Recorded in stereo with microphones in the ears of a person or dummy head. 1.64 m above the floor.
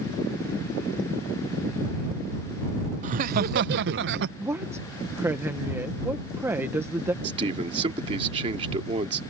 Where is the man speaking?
35° right (ahead or behind).